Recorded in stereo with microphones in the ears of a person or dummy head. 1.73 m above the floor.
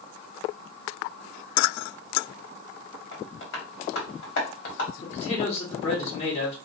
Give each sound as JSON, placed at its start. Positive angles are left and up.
{"t": 3.1, "sound": "tapping", "side_deg": 65, "distance_m": 1.2}
{"t": 5.0, "sound": "a man speaking", "side_deg": 35, "distance_m": 1.2}